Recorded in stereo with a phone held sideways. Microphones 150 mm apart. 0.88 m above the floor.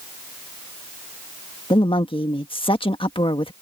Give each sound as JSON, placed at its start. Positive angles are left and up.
{"t": 1.7, "sound": "a woman speaking", "side_deg": 40}